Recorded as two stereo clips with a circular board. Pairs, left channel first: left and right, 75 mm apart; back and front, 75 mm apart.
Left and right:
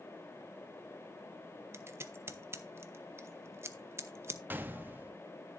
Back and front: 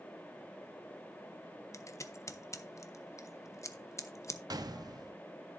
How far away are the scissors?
About 0.9 m.